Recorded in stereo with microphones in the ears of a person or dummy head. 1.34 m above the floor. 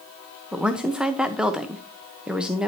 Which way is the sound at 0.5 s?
5° right (ahead or behind).